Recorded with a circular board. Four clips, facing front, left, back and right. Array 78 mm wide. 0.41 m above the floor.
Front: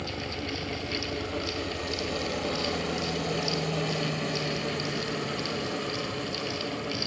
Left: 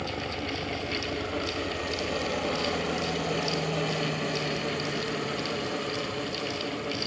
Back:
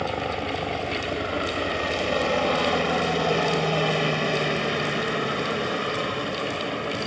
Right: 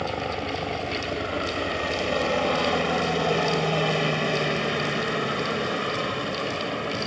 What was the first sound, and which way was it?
A helicopter, 150° right.